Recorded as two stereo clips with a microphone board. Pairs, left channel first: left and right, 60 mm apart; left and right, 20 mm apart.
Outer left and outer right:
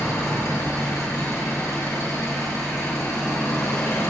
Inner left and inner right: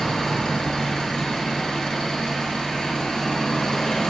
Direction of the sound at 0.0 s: 50° left (ahead or behind).